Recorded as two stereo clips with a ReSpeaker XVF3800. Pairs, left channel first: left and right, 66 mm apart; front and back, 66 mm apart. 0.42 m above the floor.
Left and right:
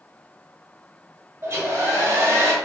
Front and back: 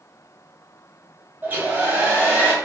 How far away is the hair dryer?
About 0.9 m.